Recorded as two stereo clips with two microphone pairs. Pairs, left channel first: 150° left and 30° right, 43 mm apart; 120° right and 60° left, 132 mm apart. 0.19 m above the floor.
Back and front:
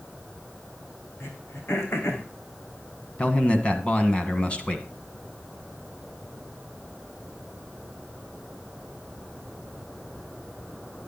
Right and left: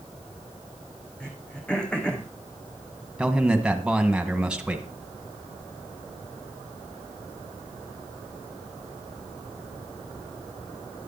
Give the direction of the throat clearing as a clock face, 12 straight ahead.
7 o'clock.